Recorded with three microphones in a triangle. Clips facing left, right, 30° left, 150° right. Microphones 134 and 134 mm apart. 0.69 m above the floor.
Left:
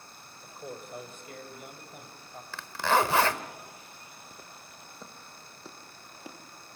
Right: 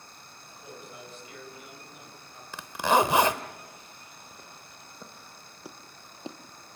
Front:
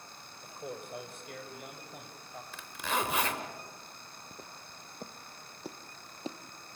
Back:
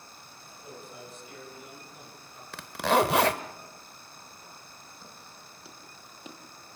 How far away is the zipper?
About 0.9 m.